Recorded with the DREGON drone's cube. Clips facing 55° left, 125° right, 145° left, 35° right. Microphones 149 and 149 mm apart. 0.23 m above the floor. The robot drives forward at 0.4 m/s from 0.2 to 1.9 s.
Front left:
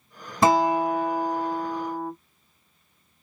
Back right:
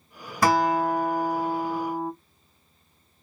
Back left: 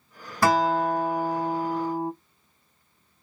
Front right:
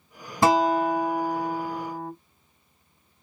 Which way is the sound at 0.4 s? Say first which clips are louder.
Front left 2 dB, front right 1 dB; 15° left.